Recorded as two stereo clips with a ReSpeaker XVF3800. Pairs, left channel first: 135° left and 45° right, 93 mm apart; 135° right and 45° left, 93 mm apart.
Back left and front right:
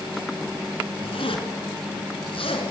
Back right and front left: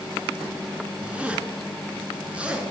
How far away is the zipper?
About 4 m.